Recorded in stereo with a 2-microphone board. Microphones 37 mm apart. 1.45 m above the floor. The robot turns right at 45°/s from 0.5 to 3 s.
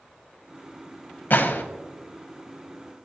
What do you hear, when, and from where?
1.3 s a gunshot: 55° left (ahead or behind), 0.8 m; by 1.6 s 70° left (ahead or behind), 0.8 m